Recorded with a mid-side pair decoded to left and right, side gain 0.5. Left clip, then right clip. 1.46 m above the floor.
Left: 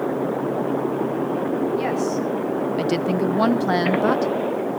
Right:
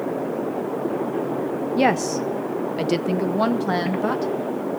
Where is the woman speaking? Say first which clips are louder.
Right 3 dB; 60° right, 0.7 m; by 4.3 s 25° left, 1.5 m.